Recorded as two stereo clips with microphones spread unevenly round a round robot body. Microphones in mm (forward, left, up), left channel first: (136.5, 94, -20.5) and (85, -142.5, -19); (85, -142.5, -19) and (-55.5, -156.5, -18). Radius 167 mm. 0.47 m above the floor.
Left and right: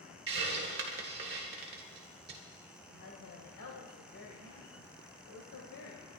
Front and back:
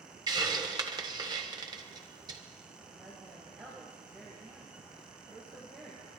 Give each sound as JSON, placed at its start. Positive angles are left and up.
{"t": 0.3, "sound": "a hiss", "azimuth_deg": -130, "distance_m": 1.5}
{"t": 2.9, "sound": "a woman speaking", "azimuth_deg": 110, "distance_m": 1.8}